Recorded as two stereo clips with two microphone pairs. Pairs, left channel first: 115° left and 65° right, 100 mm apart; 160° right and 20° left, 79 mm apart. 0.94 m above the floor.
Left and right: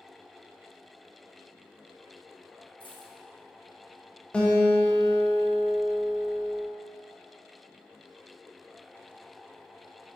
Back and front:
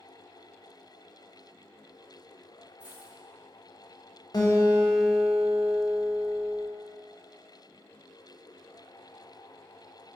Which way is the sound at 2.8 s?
95° left.